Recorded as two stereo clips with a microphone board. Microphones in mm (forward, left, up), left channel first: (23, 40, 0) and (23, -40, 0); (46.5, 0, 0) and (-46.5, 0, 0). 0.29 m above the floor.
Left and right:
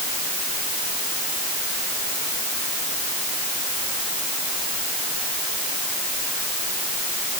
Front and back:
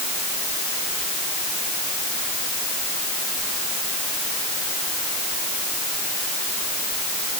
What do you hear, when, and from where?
Only background noise.